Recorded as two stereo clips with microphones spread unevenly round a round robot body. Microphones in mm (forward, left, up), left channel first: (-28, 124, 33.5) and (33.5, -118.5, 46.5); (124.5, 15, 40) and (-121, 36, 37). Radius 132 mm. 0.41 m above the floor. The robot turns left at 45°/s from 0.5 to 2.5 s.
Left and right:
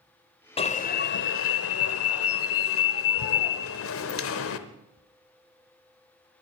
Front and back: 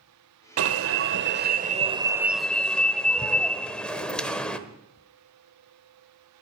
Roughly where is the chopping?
No chopping in this recording.